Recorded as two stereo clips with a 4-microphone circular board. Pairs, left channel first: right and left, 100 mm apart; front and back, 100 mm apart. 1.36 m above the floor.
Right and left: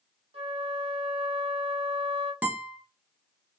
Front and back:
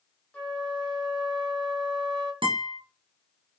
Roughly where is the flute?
Left.